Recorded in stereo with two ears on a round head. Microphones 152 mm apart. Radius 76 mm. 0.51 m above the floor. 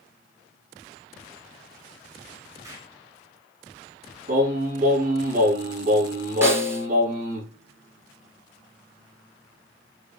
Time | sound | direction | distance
2.6 | an explosion | 20° right (ahead or behind) | 3.5 m
4.3 | singing | 50° right (ahead or behind) | 3.5 m
6.4 | a snare drum | 15° right (ahead or behind) | 1.9 m